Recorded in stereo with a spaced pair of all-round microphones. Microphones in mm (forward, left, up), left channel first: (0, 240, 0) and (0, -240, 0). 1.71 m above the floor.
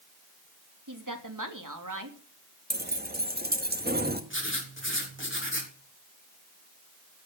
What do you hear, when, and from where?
0.9 s a woman speaking: 40° right (ahead or behind), 3 m
2.7 s keys jangling: 20° right (ahead or behind), 1.7 m
4.3 s writing: 25° left (ahead or behind), 4 m